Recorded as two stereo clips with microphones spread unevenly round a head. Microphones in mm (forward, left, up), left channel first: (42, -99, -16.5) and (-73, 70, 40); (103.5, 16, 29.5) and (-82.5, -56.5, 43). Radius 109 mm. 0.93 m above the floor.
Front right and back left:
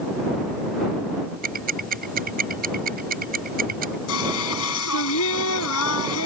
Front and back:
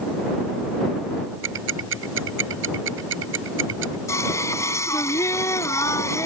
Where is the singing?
55° right.